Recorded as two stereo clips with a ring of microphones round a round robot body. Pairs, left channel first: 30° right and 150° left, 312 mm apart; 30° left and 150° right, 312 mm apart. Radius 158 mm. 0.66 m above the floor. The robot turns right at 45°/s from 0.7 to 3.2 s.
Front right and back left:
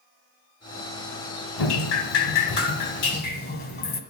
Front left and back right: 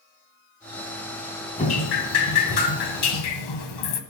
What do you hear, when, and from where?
1.6 s dripping: 40° right, 1.3 m; by 4.0 s 30° left, 1.3 m